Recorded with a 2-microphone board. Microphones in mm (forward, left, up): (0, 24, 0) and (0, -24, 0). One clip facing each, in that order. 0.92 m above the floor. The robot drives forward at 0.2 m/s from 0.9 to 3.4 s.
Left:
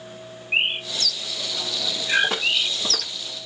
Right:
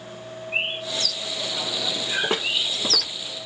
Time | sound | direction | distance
0.5 | a bird | 60° left (ahead or behind) | 0.9 m
2.2 | footsteps | 30° right (ahead or behind) | 3 m